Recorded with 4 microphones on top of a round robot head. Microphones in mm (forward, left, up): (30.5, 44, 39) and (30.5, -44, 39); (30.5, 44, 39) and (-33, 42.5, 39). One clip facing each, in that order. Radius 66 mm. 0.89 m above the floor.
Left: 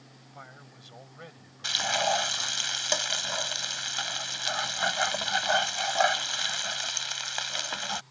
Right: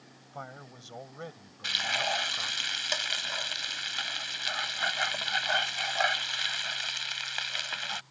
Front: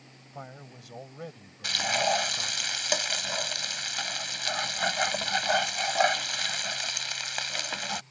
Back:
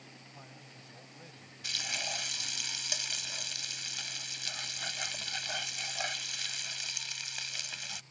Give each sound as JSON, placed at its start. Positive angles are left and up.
{"t": 0.3, "sound": "a man speaking", "azimuth_deg": -35}
{"t": 1.6, "sound": "frying", "azimuth_deg": 30}